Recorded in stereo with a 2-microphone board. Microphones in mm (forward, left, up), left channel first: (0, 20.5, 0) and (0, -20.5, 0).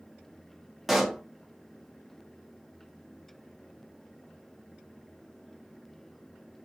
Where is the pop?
5° right (ahead or behind), 0.5 m.